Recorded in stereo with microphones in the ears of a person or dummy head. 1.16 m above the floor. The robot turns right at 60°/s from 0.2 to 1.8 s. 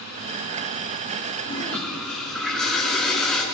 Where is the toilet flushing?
25° left (ahead or behind), 4 m; by 3.4 s 5° left (ahead or behind), 4 m.